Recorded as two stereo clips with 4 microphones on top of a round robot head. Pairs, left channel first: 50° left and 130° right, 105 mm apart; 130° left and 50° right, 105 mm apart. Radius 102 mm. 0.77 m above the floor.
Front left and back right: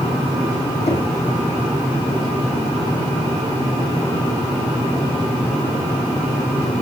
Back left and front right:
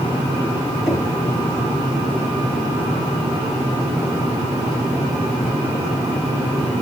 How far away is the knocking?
About 3 m.